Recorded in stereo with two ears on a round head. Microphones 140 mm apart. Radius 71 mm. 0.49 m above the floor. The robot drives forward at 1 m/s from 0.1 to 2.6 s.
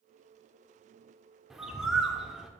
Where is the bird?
5° right (ahead or behind), 0.7 m.